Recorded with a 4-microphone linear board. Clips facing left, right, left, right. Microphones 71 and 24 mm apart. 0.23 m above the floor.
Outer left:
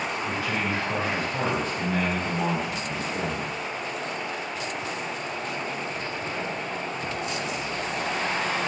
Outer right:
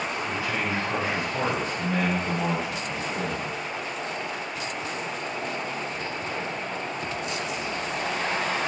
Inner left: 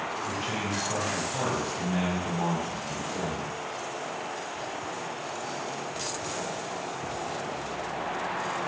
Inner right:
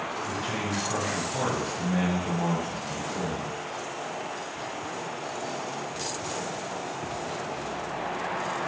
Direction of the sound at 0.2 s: 55° left (ahead or behind).